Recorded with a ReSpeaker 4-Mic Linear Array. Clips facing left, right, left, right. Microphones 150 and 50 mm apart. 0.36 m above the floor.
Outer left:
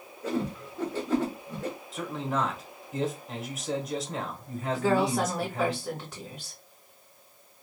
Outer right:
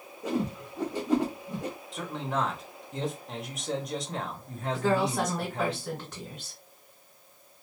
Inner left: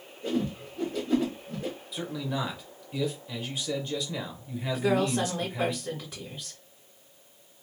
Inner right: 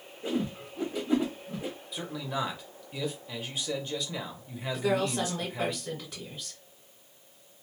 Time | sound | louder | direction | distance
0.2 | a whoosh | even, inner left 2 dB | 15° right (ahead or behind) | 1.2 m
1.9 | a man speaking | outer left 1 dB, inner left 1 dB | centre (ahead or behind) | 1.0 m
4.7 | a woman speaking | outer left 1 dB, inner left 2 dB | 10° left (ahead or behind) | 1.4 m